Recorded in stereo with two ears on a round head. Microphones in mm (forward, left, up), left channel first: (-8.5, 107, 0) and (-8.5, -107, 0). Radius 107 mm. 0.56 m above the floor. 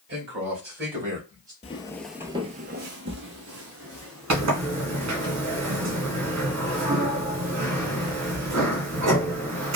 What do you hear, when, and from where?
0.1 s a man speaking: 55° right (ahead or behind), 1.9 m; by 1.5 s 35° right (ahead or behind), 2 m
1.6 s footsteps: 25° left (ahead or behind), 0.6 m; by 5.3 s 60° right (ahead or behind), 2.5 m
4.3 s a sliding door: 75° right (ahead or behind), 1.5 m